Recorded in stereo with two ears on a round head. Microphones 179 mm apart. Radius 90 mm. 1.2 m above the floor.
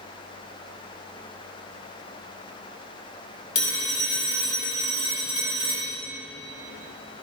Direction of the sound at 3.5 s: 40° left (ahead or behind).